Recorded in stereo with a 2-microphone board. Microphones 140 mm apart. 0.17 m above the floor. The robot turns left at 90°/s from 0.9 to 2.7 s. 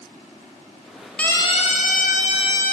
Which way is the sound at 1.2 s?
10° left (ahead or behind).